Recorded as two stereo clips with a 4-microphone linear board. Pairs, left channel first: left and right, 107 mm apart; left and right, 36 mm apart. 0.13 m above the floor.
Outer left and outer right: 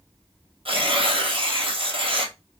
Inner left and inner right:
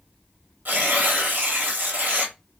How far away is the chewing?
No chewing in this recording.